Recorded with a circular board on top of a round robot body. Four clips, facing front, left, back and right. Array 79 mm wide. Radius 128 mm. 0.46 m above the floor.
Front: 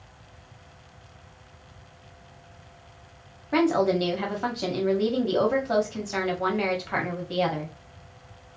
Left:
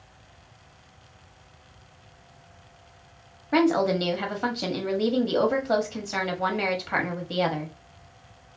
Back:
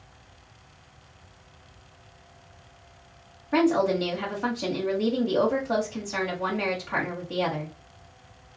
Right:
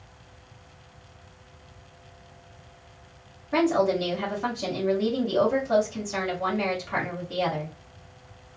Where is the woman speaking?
65° left, 1.3 m.